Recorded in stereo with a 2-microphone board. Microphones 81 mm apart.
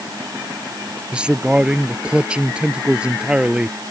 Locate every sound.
1.1 s a man speaking: 10° right (ahead or behind)